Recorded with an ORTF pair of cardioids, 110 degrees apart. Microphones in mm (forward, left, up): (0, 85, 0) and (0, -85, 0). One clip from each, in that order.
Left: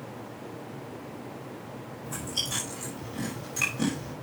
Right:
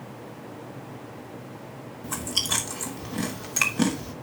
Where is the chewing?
60° right, 3 m.